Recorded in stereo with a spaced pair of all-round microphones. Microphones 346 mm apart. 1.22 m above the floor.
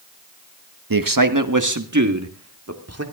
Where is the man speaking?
75° right (ahead or behind), 1.3 m; by 3.0 s 45° right (ahead or behind), 2.5 m.